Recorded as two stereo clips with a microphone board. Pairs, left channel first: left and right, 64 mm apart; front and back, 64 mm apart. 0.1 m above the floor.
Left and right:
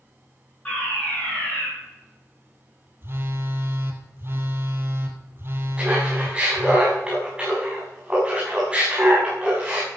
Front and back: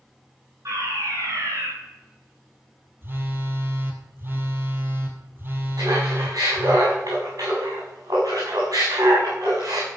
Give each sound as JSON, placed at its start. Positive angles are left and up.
{"t": 0.7, "sound": "a fire alarm", "azimuth_deg": 160, "distance_m": 6.0}
{"t": 3.0, "sound": "a phone buzzing", "azimuth_deg": -130, "distance_m": 2.0}
{"t": 5.8, "sound": "laughter", "azimuth_deg": -165, "distance_m": 7.0}